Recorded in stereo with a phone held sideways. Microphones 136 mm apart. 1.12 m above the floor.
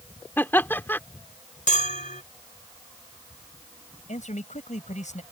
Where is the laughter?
15° left (ahead or behind).